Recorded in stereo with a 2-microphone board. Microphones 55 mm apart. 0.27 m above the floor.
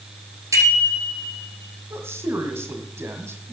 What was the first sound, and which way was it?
A bicycle bell, 70° right (ahead or behind).